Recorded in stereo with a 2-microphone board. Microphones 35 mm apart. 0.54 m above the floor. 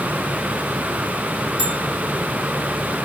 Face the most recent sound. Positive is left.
turn(degrees=-20)  # may be behind; listen again after turning